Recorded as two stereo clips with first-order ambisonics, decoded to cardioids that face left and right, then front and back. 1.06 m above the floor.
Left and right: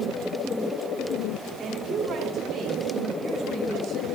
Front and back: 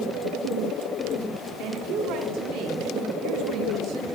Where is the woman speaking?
155° right, 2 m.